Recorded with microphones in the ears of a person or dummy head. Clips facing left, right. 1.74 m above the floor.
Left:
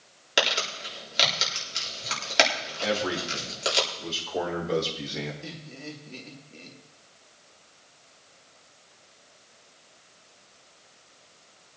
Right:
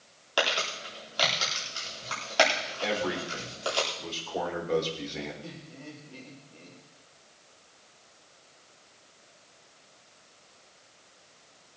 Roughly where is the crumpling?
Left.